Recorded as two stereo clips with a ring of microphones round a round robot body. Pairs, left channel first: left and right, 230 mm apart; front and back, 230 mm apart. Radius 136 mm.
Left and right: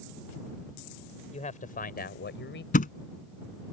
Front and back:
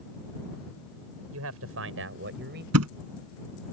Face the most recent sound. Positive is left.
turn(degrees=145)